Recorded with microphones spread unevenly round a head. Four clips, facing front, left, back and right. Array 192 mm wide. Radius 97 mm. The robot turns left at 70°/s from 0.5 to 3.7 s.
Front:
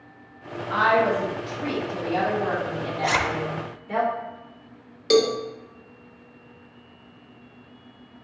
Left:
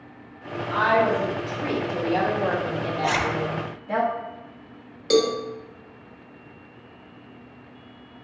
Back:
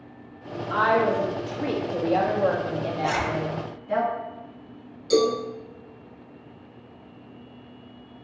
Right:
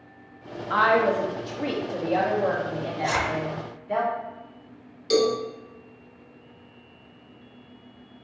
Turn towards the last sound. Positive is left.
turn(degrees=30)